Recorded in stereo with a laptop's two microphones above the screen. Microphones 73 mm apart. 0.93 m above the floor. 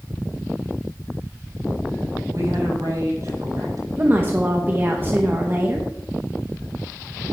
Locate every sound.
2.3 s a woman speaking: 50° right (ahead or behind), 7 m
4.0 s a woman speaking: 30° right (ahead or behind), 1.0 m